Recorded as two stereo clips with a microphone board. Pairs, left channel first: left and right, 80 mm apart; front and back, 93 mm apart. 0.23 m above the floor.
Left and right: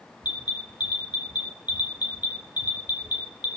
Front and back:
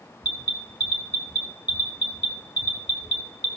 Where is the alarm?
135° right, 1.9 m.